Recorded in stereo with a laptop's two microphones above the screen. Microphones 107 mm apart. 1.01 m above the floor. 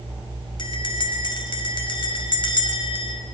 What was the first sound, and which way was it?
A bell, 50° left (ahead or behind).